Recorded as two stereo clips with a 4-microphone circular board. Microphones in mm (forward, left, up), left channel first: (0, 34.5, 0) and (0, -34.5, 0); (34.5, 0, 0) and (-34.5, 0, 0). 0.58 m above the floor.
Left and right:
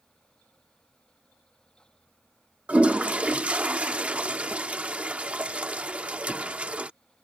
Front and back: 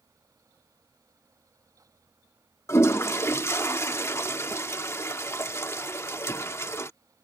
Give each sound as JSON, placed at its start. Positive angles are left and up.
{"t": 2.7, "sound": "a toilet flushing", "azimuth_deg": -25}